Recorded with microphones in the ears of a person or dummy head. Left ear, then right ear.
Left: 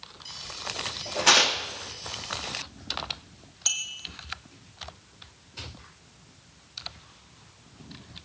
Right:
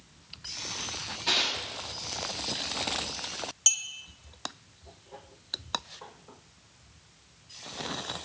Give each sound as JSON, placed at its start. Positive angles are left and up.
{"t": 1.3, "sound": "tearing paper", "side_deg": 45, "distance_m": 0.9}
{"t": 3.7, "sound": "a clink", "side_deg": -10, "distance_m": 0.6}